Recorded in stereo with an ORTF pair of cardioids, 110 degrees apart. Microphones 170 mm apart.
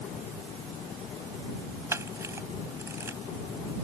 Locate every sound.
1.9 s a camera shutter: 15° right